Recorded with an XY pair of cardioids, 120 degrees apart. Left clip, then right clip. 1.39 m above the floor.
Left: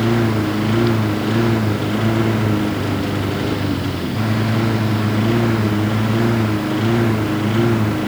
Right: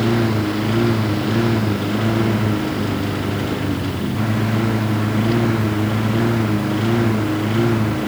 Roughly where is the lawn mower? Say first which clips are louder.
Left 1 dB; ahead.